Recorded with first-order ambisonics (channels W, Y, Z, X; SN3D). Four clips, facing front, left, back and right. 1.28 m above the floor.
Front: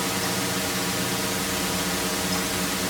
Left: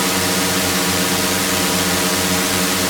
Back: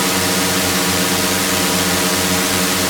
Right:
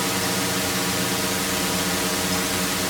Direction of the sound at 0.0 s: 145° left.